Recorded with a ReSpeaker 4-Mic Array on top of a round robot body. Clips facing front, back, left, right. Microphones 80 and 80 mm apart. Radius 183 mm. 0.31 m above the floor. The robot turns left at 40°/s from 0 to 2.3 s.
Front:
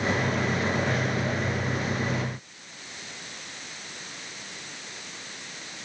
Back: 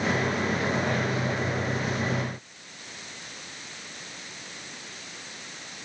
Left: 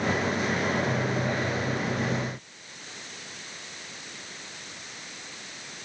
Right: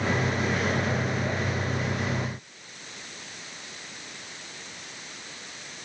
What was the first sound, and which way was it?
Only background noise.